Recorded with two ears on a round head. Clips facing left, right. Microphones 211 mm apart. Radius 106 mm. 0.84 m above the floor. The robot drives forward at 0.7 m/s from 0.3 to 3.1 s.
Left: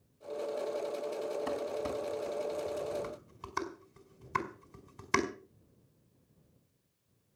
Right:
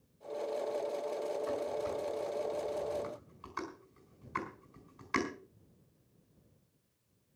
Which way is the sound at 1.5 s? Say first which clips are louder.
Even; 80° left.